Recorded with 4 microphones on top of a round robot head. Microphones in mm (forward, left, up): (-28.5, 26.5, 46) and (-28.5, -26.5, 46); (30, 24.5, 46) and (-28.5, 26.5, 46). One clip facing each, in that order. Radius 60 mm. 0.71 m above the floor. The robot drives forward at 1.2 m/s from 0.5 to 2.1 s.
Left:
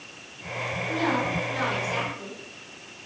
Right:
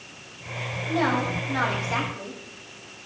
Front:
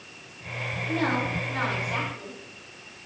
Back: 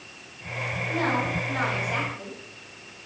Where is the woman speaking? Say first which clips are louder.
Right 2 dB, even; 95° right, 4.5 m; by 2.4 s 115° right, 5 m.